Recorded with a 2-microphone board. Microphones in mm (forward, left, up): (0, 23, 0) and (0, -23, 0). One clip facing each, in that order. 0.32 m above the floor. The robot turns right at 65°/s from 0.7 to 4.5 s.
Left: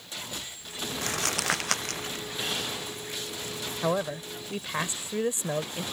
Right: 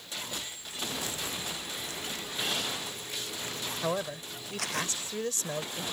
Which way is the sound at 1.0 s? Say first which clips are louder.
Left 7 dB; 60° left (ahead or behind).